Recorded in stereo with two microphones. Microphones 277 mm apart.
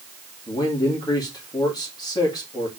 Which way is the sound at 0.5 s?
15° left (ahead or behind).